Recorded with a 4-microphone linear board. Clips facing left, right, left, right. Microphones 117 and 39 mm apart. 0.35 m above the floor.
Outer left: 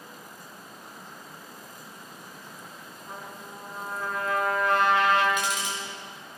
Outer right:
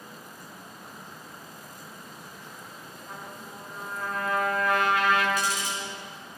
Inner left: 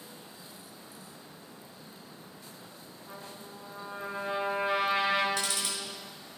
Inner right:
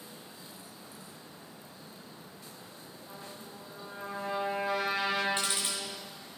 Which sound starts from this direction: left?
A trumpet, at 3.1 s.